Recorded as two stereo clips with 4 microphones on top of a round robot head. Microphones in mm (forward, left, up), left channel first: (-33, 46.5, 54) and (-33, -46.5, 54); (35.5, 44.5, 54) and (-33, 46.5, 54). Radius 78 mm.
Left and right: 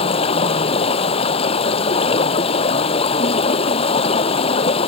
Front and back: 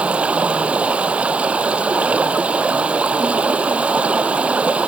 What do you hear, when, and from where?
0.0 s running water: 105° left